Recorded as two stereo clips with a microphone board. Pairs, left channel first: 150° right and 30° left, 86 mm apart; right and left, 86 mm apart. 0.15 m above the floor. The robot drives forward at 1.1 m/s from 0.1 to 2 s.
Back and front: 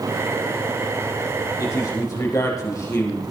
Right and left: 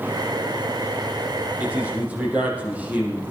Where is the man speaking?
160° left, 5 m; by 3.3 s 165° left, 5.5 m.